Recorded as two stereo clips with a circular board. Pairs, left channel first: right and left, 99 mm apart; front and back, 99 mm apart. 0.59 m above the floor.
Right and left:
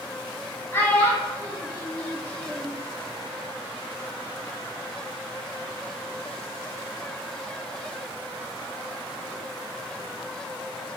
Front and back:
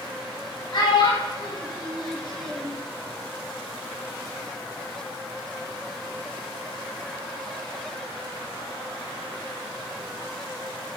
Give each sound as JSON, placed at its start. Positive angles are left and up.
{"t": 0.7, "sound": "a child speaking", "azimuth_deg": -30, "distance_m": 0.6}